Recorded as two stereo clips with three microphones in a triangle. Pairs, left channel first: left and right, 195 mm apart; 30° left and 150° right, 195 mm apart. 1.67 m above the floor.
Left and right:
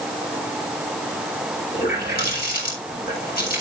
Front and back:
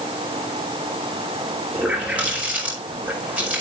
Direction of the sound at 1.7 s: 125° left.